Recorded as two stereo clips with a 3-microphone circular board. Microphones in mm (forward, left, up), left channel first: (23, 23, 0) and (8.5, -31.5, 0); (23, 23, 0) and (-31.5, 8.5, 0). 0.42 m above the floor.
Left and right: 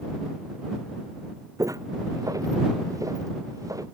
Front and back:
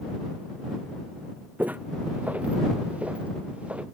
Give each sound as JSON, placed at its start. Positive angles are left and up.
{"t": 1.6, "sound": "footsteps", "azimuth_deg": -105}